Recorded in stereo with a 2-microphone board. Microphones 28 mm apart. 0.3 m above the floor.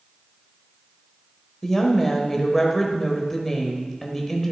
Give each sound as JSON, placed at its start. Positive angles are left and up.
{"t": 1.6, "sound": "a woman speaking", "side_deg": 10, "distance_m": 1.2}